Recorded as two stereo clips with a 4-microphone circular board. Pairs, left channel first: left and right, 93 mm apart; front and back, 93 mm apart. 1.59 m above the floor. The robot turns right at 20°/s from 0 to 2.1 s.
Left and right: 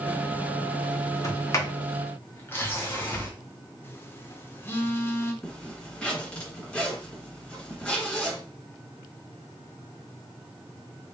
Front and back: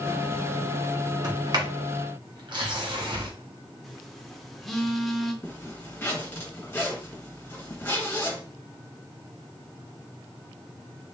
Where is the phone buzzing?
85° left, 0.7 m.